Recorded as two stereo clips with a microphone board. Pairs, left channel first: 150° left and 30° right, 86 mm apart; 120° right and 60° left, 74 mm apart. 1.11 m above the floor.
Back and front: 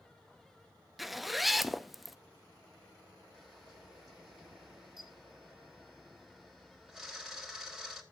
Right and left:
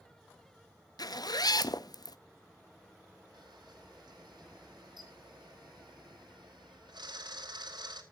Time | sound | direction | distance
1.0 | a zipper | 120° right | 0.6 m
3.3 | a camera shutter | 55° left | 2.5 m